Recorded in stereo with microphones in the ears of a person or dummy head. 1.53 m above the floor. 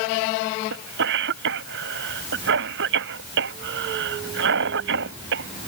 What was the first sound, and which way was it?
A cough, 65° right (ahead or behind).